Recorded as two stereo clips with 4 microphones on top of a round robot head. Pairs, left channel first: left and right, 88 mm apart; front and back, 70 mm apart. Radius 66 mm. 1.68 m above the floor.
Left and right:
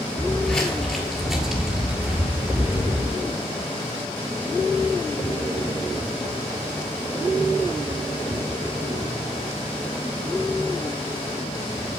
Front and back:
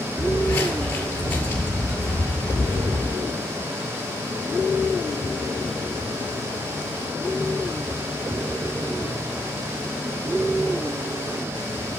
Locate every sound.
0.2 s footsteps: 35° left, 1.9 m; by 3.1 s 50° right, 2 m